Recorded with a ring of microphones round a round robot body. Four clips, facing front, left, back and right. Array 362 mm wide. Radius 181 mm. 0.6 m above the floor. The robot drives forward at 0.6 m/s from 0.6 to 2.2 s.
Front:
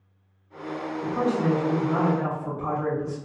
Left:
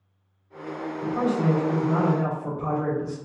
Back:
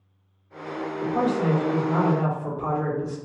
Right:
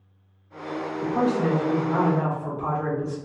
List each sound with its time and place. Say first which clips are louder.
1.0 s a man speaking: right 1 dB, back 1 dB; 140° right, 1.4 m; by 3.1 s 155° right, 1.9 m